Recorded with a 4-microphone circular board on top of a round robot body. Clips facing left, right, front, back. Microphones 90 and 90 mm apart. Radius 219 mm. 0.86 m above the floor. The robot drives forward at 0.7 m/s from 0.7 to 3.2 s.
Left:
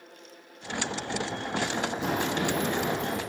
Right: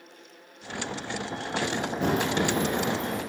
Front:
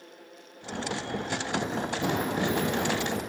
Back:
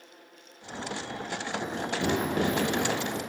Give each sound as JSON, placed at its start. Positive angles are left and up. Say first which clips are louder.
{"t": 1.6, "sound": "running footsteps", "louder": "right 4 dB, even", "azimuth_deg": -85, "distance_m": 1.0}